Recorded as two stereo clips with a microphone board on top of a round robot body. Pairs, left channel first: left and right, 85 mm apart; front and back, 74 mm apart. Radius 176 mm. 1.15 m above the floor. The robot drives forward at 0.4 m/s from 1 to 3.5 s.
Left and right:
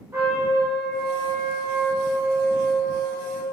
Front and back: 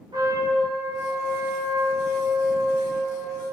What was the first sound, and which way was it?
A trumpet, 150° right.